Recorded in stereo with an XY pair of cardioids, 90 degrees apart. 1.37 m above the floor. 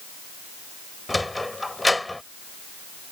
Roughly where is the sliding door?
Ahead.